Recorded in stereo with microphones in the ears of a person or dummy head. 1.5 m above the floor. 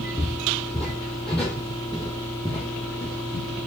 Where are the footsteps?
Centre (ahead or behind), 1.9 m; by 3.6 s 5° left (ahead or behind), 4 m.